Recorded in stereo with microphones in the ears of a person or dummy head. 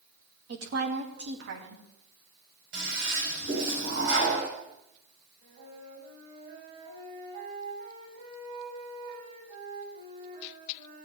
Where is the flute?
40° right (ahead or behind), 6 m.